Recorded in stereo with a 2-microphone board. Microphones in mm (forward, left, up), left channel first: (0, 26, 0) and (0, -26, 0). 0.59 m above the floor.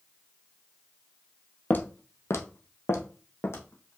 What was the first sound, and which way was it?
Footsteps, 35° left (ahead or behind).